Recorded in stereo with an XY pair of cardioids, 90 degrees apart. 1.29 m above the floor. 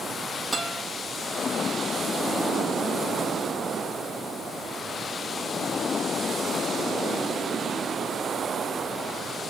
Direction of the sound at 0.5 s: 20° right.